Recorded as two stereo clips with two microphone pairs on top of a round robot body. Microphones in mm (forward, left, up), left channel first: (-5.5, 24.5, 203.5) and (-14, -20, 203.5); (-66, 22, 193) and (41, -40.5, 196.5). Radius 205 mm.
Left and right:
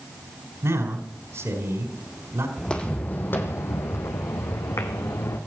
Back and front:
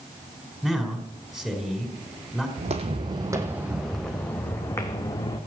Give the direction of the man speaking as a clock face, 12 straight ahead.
4 o'clock.